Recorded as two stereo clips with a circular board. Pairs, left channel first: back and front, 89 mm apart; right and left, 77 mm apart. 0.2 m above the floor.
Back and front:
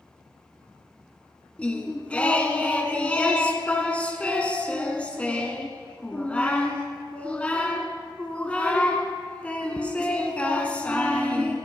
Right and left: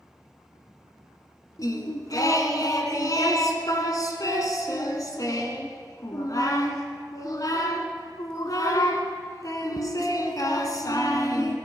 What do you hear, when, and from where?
1.6 s singing: 105° right, 1.3 m